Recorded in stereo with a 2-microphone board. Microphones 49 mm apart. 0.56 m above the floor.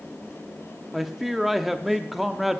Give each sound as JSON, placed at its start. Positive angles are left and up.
{"t": 0.9, "sound": "a man speaking", "side_deg": -5, "distance_m": 0.6}